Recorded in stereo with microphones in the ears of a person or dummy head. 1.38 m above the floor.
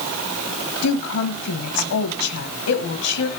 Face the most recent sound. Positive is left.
turn(degrees=90)